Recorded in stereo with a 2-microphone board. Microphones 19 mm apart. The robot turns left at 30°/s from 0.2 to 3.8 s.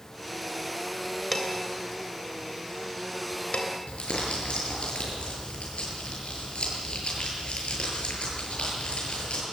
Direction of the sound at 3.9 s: 75° left (ahead or behind).